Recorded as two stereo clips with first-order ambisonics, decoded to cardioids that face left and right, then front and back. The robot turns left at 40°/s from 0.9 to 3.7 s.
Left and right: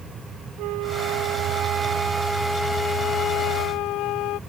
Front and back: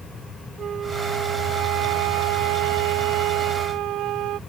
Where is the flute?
115° right; by 4.4 s 130° left.